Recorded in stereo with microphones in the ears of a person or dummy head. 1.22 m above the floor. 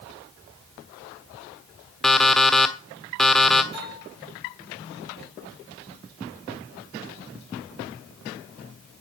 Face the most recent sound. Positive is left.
turn(degrees=-35)  # may be behind; listen again after turning